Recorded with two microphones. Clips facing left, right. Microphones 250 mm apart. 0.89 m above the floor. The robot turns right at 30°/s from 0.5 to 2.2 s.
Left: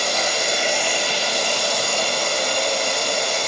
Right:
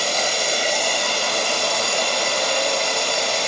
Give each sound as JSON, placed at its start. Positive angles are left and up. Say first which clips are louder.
{"t": 0.0, "sound": "running water", "louder": "even", "azimuth_deg": -145, "distance_m": 1.7}